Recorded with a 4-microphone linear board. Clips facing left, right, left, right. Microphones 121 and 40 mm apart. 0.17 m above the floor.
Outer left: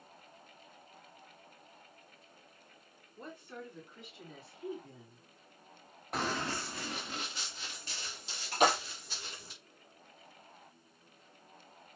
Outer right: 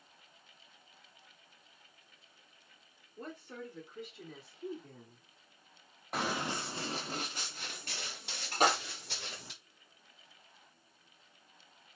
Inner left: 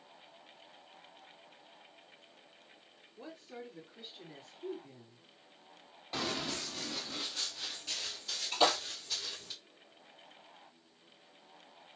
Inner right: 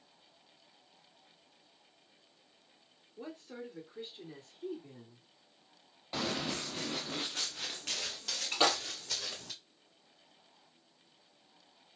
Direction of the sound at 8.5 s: 40° right (ahead or behind).